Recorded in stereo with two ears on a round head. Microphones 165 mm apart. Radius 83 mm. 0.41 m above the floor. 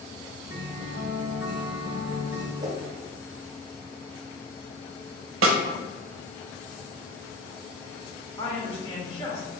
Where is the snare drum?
80° right, 0.5 m.